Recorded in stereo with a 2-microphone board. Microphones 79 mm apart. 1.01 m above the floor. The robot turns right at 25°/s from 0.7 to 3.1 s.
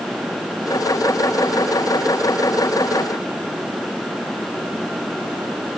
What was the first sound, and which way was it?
Only background noise.